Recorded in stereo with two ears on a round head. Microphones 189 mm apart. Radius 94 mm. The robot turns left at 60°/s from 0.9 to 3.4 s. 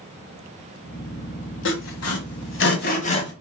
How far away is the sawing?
About 1.2 m.